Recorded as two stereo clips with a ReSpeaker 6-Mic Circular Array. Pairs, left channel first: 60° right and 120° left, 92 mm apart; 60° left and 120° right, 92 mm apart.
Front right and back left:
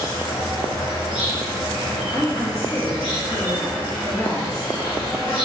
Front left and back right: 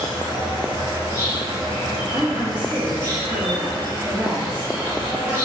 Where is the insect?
70° right, 1.6 m.